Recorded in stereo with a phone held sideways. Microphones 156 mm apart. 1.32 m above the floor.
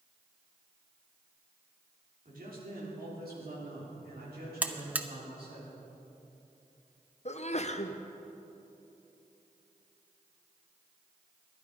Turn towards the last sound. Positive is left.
turn(degrees=45)  # may be behind; listen again after turning